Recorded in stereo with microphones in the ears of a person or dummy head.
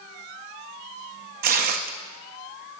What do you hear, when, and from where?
1.4 s tearing paper: 50° right (ahead or behind), 0.8 m